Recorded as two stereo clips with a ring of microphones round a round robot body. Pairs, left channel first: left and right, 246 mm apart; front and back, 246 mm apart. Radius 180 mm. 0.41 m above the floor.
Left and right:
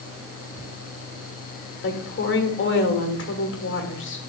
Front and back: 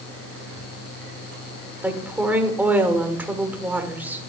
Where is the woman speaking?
100° left, 1.6 m.